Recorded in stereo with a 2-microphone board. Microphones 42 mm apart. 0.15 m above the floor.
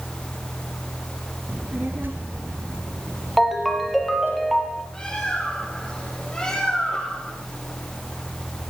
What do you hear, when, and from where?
1.5 s a child speaking: 40° right (ahead or behind), 2 m; by 4.4 s 60° right (ahead or behind), 5 m
3.4 s a ringtone: centre (ahead or behind), 3 m
4.9 s a bird: 15° left (ahead or behind), 6.5 m